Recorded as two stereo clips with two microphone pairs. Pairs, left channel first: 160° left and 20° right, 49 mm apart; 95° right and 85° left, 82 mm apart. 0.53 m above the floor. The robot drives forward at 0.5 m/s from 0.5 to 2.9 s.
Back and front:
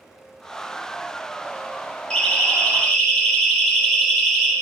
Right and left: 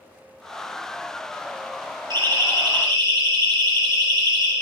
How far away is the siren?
About 3 m.